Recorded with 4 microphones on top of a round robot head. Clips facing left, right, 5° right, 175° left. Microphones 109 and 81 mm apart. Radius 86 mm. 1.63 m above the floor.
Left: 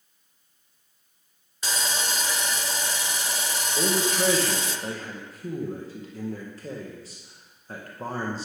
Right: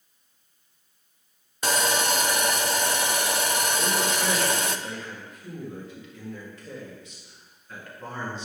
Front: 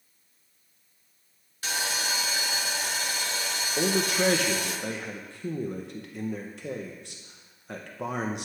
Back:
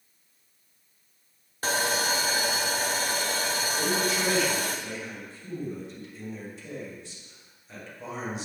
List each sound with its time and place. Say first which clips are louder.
1.6 s sawing: right 6 dB, back 5 dB; 125° right, 0.7 m
3.8 s a man speaking: left 1 dB, front 4 dB; 30° left, 1.8 m